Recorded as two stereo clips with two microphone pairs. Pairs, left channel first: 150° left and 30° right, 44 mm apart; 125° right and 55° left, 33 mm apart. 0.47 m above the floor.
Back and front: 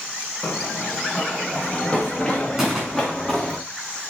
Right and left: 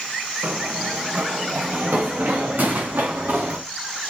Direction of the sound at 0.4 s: 95° left.